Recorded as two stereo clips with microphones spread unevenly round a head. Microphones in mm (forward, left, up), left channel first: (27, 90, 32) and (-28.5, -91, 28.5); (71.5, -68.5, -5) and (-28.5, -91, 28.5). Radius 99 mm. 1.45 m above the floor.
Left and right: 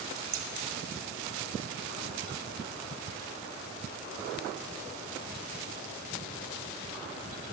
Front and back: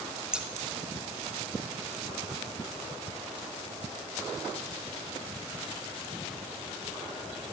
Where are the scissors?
85° right, 0.6 m.